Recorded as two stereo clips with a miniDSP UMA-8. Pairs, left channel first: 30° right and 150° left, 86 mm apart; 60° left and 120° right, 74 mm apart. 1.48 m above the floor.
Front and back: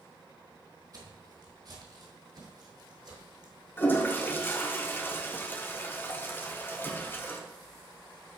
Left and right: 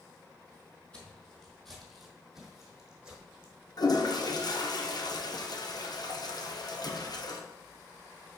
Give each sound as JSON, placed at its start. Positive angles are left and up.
{"t": 0.9, "sound": "footsteps", "azimuth_deg": 135, "distance_m": 2.0}
{"t": 3.8, "sound": "a toilet flushing", "azimuth_deg": 35, "distance_m": 0.9}